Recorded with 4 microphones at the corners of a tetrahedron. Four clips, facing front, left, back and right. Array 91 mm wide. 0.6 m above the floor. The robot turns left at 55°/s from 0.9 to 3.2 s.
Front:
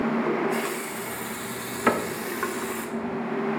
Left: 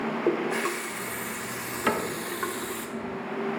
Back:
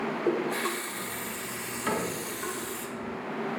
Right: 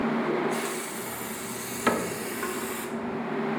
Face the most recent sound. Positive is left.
turn(degrees=-80)